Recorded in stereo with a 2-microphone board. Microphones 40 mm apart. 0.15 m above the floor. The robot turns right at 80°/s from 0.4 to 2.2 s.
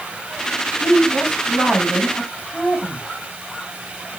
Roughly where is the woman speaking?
Right.